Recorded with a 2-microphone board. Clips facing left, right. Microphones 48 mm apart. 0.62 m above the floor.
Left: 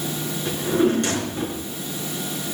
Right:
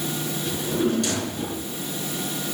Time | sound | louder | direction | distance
0.5 | a drawer | left 5 dB | 40° left (ahead or behind) | 3.5 m